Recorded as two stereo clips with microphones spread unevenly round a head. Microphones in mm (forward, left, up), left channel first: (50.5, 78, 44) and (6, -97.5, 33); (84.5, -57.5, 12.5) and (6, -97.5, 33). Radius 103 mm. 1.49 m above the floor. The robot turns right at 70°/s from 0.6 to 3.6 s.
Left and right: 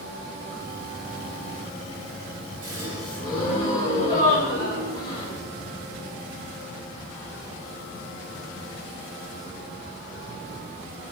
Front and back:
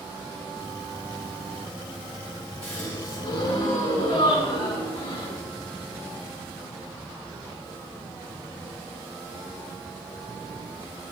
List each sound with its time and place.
2.6 s a gasp: 45° right, 5.5 m; by 5.4 s 25° left, 5.5 m